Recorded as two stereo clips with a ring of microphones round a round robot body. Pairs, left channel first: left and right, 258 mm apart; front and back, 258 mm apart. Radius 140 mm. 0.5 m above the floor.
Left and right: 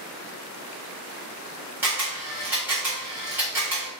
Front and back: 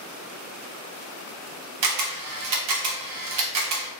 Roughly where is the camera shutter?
Behind.